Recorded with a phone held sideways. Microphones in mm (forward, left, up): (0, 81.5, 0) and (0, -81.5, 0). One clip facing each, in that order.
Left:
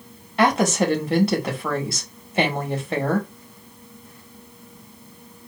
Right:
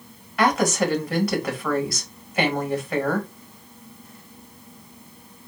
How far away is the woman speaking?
About 1.6 m.